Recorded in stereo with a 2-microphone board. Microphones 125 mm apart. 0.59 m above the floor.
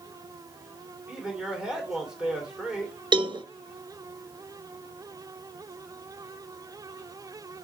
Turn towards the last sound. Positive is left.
turn(degrees=-40)  # may be behind; listen again after turning